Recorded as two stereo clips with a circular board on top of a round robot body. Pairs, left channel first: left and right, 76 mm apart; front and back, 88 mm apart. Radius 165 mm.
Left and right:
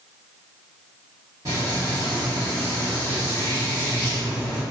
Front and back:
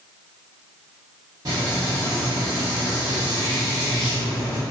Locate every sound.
1.4 s frying: 135° right, 0.5 m